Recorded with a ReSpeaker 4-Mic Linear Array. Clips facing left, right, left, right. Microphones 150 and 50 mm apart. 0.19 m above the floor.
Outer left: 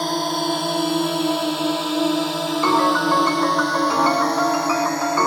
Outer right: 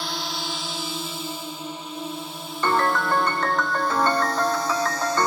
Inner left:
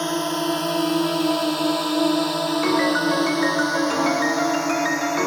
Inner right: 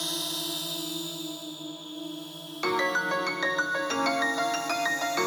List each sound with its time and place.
0.0 s a drone: 45° left (ahead or behind); by 5.3 s 55° left (ahead or behind)
2.6 s a piano: 10° left (ahead or behind)